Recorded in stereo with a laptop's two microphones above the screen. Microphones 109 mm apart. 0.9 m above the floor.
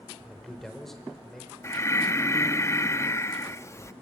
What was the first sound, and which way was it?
A man speaking, centre (ahead or behind).